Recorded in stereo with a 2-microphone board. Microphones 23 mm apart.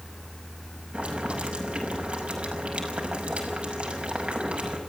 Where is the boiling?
45° right (ahead or behind), 5.5 m.